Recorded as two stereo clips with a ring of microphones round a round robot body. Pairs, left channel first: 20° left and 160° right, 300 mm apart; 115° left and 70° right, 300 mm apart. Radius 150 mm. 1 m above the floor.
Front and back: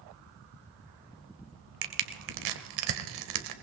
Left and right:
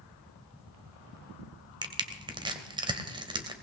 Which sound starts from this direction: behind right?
Crushing, at 1.8 s.